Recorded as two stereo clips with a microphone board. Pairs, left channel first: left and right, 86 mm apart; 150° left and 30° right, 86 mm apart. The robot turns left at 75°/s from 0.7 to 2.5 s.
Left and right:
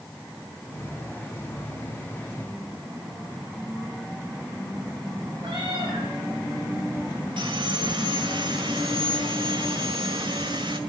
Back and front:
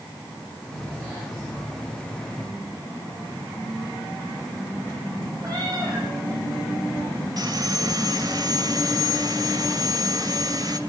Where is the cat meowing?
75° right, 10 m.